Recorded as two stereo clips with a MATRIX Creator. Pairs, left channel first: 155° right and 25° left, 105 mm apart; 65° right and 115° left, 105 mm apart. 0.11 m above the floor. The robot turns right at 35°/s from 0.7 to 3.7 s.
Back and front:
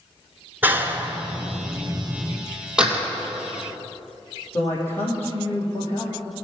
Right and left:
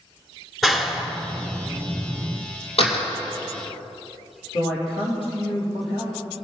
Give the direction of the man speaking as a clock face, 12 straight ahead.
3 o'clock.